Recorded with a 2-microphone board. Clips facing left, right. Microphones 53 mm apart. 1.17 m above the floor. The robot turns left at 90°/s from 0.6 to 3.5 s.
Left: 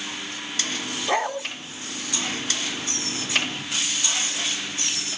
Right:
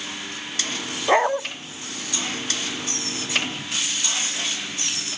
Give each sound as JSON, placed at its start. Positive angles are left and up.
{"t": 1.1, "sound": "a dog barking", "side_deg": -25, "distance_m": 0.8}